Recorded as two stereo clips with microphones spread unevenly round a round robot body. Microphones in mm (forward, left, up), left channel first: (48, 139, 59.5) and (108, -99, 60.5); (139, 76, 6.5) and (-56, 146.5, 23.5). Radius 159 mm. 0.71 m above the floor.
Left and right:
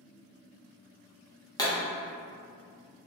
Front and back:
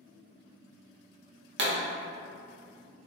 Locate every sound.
1.6 s a pop: 175° left, 0.7 m